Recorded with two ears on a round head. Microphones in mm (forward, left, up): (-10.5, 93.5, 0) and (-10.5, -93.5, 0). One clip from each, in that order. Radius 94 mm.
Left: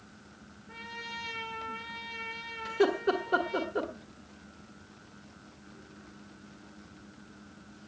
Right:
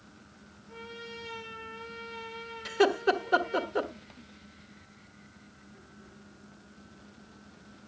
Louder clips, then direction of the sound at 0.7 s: Left 3 dB; 45° left (ahead or behind).